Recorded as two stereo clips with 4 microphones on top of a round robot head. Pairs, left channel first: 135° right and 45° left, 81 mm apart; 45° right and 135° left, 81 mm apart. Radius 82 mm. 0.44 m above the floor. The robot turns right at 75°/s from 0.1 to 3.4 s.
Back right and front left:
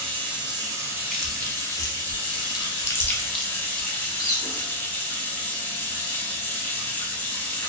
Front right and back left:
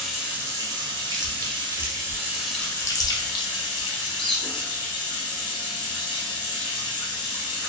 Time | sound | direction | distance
0.0 | running water | 45° left | 0.9 m
1.1 | chewing | 140° left | 0.6 m
3.9 | a squeak | 125° right | 0.9 m